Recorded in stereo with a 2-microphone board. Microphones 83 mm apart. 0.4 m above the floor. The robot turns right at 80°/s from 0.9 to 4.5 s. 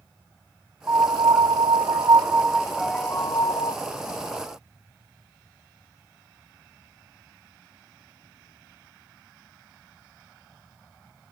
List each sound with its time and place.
0.9 s a piano: 150° right, 0.7 m; by 3.8 s 80° left, 0.7 m